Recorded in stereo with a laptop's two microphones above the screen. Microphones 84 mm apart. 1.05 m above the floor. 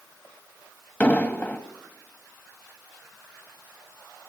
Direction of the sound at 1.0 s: 20° left (ahead or behind).